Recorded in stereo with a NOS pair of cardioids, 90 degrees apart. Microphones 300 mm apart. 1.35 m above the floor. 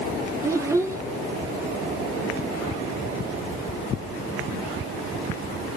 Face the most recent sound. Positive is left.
turn(degrees=-10)